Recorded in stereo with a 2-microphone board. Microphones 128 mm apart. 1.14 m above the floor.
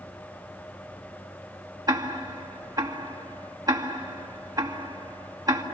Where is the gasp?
I don't hear a gasp.